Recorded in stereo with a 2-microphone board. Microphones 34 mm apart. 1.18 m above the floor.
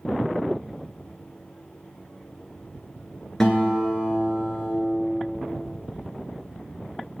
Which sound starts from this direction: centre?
A guitar, at 3.4 s.